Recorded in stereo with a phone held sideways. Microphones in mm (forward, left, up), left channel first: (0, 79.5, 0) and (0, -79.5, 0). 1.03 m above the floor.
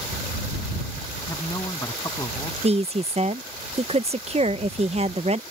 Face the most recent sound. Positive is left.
turn(degrees=-40)  # may be behind; listen again after turning